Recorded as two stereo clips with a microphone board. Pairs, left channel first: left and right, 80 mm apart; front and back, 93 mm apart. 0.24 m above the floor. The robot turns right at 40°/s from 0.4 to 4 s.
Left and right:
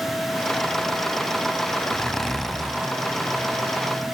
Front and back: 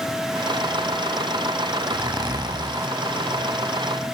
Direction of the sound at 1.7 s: 155° left.